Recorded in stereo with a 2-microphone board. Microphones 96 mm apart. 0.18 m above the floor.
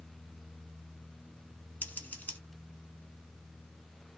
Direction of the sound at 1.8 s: 20° left (ahead or behind).